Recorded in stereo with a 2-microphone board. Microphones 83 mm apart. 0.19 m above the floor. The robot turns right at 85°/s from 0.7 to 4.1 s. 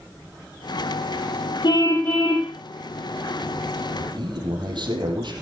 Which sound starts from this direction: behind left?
A car horn, at 1.6 s.